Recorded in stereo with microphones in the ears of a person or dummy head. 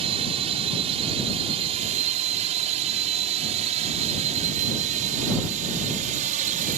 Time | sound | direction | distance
0.0 | a drone | 35° right (ahead or behind) | ?